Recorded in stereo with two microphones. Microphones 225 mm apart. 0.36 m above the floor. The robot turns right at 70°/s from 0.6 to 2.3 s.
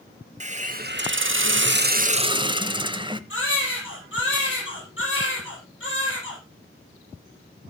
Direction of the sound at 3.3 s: 60° left (ahead or behind).